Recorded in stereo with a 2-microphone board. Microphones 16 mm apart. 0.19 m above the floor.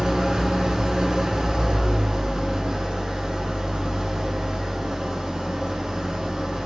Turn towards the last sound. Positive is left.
turn(degrees=-60)  # may be behind; listen again after turning